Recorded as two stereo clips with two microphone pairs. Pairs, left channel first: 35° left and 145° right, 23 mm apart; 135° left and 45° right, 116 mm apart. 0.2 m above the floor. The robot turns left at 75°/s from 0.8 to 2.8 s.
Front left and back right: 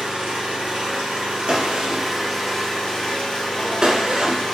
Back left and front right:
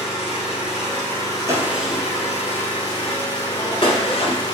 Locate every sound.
0.0 s an engine running: 125° right, 1.8 m; by 4.5 s 85° left, 1.8 m
1.5 s a gunshot: 100° right, 0.7 m; by 4.5 s 160° left, 0.7 m